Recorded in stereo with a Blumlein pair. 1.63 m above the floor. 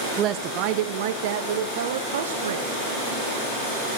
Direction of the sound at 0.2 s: 30° right.